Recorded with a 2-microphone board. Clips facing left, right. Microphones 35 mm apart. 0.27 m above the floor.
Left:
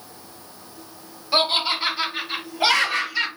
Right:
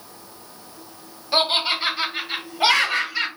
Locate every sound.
1.3 s laughter: 15° right (ahead or behind), 1.7 m; by 3.3 s 20° right (ahead or behind), 1.5 m